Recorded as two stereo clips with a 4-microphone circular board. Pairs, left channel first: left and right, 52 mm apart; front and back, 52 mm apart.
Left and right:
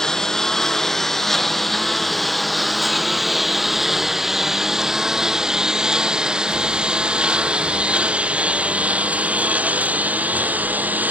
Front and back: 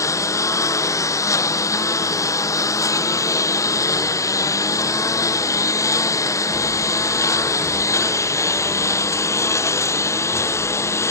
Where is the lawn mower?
10° left; by 11.1 s 30° right.